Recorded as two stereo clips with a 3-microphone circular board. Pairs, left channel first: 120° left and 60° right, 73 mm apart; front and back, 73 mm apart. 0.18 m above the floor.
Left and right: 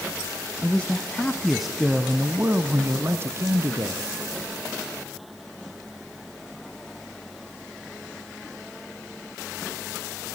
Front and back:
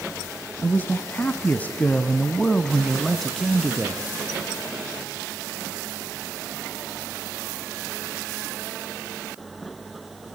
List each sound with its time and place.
0.6 s a man speaking: 60° left, 1.8 m; by 4.0 s 95° right, 2.5 m